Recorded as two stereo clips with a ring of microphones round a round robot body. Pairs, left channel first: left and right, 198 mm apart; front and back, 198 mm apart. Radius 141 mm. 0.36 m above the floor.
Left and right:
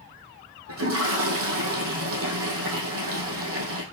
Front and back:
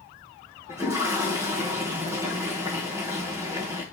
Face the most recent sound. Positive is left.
turn(degrees=-95)